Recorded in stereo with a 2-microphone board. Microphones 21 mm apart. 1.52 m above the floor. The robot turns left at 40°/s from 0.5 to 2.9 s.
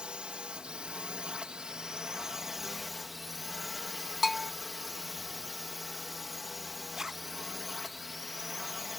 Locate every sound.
0.0 s a drone: 80° right; by 9.0 s 175° right
4.2 s a bell: 10° right (ahead or behind)
6.9 s a zipper: 30° right (ahead or behind)